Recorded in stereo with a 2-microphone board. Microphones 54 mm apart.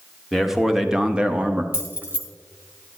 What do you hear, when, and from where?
0.3 s a man speaking: 5° right (ahead or behind), 1.3 m; by 1.6 s 20° right (ahead or behind), 0.8 m
1.7 s keys jangling: 35° right (ahead or behind), 1.7 m